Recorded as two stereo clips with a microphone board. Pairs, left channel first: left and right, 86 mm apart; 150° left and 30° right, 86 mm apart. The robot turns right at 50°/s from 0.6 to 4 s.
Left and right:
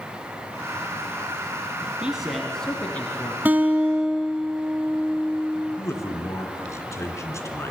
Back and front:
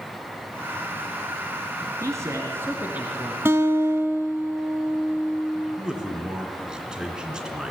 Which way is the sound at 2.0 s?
15° right.